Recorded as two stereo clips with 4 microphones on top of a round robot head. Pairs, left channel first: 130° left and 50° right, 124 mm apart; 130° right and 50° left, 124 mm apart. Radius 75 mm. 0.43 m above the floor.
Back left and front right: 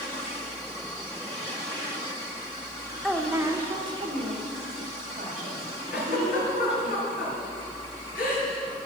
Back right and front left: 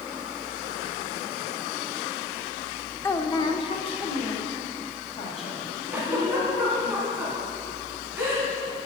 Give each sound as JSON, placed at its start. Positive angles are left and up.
{"t": 3.0, "sound": "a woman speaking", "azimuth_deg": -145, "distance_m": 0.8}
{"t": 5.9, "sound": "a giggle", "azimuth_deg": 125, "distance_m": 3.0}